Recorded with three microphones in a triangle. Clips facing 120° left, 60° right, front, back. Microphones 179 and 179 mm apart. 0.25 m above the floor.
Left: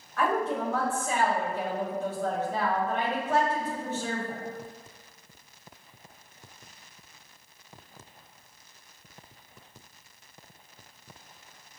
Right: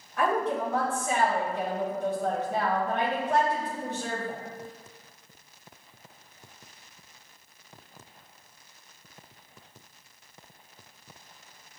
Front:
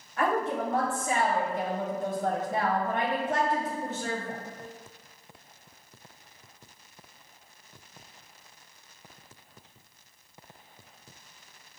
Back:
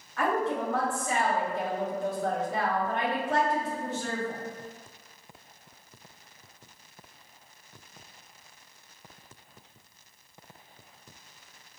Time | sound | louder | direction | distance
0.2 | a woman speaking | right 1 dB, even | 5° right | 1.1 m